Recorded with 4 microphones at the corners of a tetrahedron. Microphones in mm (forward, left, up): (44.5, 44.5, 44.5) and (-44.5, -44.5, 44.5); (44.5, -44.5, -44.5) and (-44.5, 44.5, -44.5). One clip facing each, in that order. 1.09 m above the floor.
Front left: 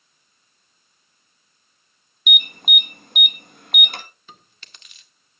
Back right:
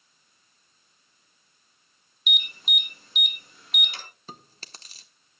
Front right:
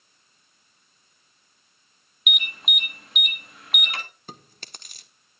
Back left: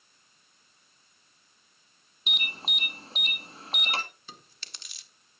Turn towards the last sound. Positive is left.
turn(degrees=-85)